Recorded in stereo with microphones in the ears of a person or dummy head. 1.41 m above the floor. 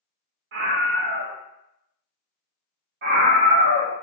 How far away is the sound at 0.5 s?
About 0.6 m.